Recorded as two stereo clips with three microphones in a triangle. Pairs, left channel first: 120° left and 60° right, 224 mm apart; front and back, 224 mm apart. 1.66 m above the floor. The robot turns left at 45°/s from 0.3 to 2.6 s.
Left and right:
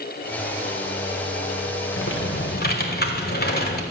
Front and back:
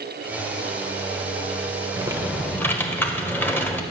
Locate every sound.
2.0 s typing on a keyboard: 110° left, 1.1 m; by 3.8 s 80° left, 1.1 m